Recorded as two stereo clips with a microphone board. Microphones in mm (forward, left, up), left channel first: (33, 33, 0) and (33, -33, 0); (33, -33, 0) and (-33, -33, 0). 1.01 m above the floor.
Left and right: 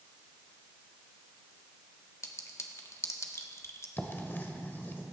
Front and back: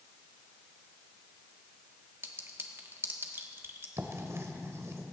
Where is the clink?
130° left, 1.3 m.